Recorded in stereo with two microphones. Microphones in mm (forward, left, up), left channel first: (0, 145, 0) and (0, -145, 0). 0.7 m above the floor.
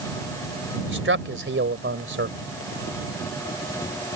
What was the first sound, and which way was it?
A man speaking, 45° right (ahead or behind).